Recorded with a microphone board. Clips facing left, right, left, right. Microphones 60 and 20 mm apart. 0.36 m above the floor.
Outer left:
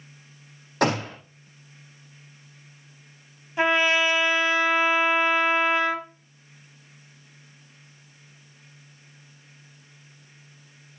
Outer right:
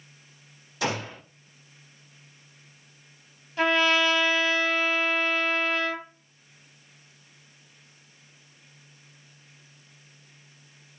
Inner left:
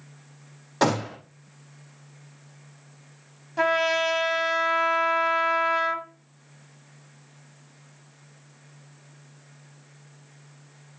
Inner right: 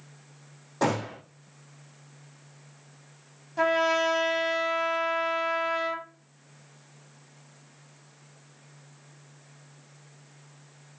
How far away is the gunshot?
About 4.5 m.